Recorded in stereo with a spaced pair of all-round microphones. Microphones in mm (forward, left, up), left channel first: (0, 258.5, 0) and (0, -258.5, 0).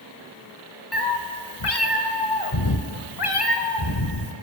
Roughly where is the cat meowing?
Left.